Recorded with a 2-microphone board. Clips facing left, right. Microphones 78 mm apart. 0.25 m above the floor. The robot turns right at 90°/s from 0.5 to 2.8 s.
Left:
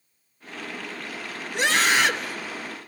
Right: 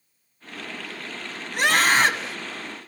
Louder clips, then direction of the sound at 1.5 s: Right 2 dB; 105° right.